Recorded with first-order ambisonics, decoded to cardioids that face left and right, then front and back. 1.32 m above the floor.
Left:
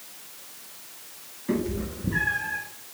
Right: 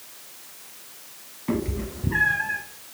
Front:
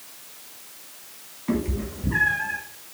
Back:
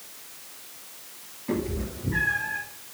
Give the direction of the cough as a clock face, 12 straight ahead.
No cough in this recording.